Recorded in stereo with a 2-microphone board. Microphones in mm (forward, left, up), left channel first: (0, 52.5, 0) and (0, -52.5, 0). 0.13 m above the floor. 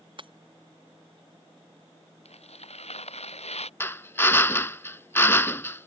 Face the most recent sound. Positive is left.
turn(degrees=25)  # may be behind; listen again after turning